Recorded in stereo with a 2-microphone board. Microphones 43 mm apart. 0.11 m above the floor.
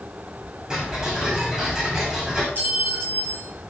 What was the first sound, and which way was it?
Ticking, 20° right (ahead or behind).